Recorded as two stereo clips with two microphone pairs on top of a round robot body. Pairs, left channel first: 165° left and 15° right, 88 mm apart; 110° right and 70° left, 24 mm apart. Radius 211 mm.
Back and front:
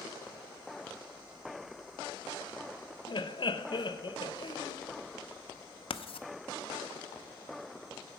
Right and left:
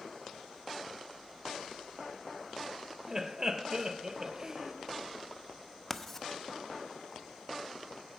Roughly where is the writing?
Behind.